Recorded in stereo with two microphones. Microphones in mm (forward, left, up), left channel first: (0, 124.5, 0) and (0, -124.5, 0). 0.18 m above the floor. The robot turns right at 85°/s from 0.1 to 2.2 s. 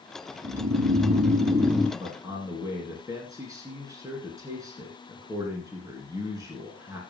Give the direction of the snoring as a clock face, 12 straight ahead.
5 o'clock.